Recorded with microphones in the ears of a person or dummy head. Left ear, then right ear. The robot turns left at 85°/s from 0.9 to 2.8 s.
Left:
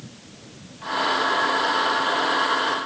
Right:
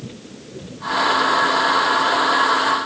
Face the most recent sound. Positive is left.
No sound to turn to.